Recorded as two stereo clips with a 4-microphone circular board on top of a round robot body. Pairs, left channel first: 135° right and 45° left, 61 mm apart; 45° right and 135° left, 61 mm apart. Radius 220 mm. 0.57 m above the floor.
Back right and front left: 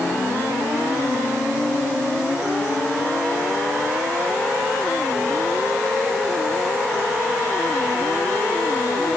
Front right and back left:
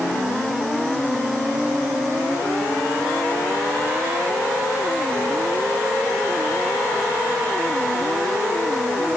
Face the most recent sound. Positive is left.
No sound to turn to.